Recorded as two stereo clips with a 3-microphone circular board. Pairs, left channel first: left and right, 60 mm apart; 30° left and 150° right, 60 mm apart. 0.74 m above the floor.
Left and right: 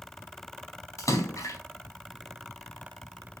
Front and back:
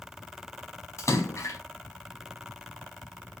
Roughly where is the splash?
Ahead left.